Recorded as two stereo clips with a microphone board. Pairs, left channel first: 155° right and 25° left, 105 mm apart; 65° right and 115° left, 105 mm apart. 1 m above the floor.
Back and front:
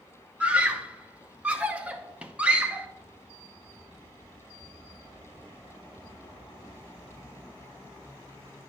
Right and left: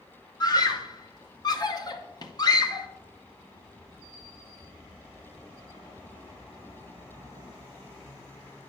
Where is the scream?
50° right, 0.7 m.